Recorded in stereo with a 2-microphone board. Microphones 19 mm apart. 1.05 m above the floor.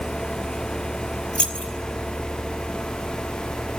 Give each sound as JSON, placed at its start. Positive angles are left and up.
{"t": 1.4, "sound": "keys jangling", "side_deg": 70, "distance_m": 2.0}